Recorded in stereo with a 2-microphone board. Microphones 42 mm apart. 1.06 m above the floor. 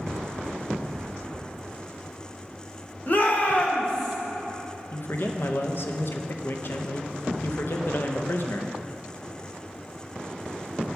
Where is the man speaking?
60° left (ahead or behind), 0.6 m.